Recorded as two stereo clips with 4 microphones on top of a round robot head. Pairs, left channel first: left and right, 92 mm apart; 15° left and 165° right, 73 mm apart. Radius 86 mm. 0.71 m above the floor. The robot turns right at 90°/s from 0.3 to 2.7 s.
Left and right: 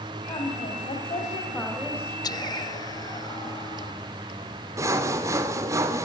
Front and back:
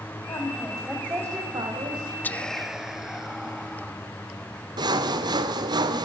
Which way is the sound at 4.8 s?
150° right.